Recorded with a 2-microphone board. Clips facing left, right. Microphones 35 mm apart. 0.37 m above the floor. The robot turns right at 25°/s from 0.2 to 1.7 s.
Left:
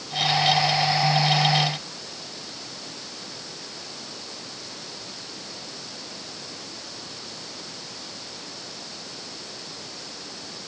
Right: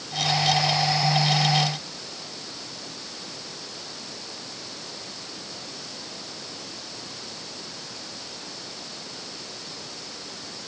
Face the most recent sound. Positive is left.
No sound to turn to.